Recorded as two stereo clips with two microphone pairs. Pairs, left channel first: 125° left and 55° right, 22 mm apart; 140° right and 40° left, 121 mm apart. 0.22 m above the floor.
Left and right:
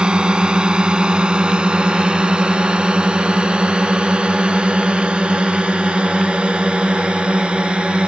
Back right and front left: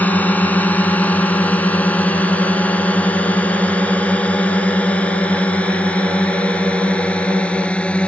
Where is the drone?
70° right; by 8.1 s 60° right.